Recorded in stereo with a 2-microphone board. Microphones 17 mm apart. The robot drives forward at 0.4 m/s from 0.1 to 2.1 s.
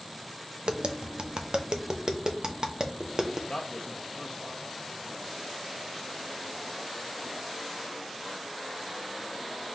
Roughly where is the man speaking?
Left.